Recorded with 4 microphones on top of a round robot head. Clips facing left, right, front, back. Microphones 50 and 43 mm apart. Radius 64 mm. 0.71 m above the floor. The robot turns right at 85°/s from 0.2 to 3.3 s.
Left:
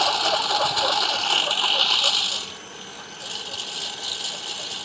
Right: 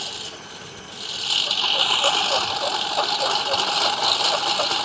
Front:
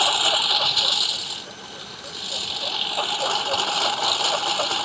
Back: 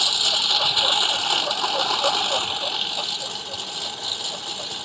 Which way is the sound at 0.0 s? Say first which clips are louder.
Left 13 dB, front 3 dB; 50° left.